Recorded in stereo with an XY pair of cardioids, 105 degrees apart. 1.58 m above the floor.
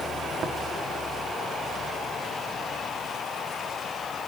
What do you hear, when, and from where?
0.4 s tapping: 65° right, 3 m